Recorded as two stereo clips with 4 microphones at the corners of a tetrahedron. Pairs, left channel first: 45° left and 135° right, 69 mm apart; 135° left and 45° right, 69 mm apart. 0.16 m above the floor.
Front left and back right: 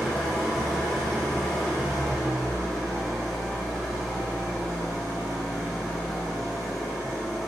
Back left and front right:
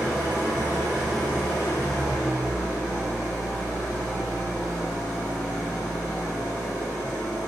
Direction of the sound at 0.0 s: 115° left.